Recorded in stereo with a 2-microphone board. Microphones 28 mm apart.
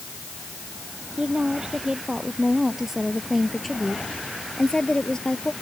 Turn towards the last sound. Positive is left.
turn(degrees=35)  # may be behind; listen again after turning